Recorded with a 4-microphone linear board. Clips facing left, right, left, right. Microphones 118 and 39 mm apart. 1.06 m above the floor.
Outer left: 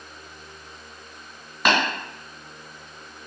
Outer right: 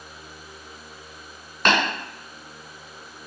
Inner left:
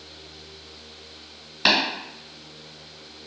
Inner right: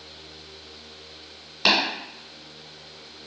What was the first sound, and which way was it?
Tapping, 5° left (ahead or behind).